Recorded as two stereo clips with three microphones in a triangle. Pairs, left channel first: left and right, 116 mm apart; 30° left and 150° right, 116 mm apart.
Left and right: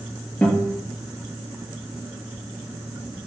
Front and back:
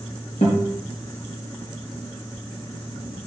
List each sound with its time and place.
0.4 s a guitar: 15° left, 3.5 m